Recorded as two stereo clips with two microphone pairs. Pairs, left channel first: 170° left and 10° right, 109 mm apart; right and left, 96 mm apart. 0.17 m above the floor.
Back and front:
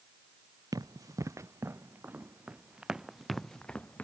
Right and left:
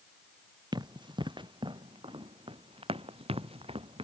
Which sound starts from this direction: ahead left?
Running footsteps, at 0.7 s.